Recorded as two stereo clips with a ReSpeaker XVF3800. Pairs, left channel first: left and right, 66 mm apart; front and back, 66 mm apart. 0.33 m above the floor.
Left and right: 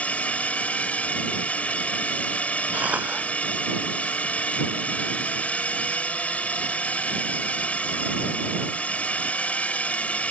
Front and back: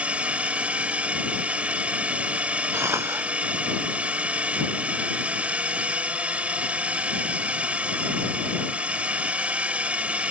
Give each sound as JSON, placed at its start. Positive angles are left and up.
{"t": 0.0, "sound": "a drone", "azimuth_deg": 135}
{"t": 2.7, "sound": "a cough", "azimuth_deg": -150}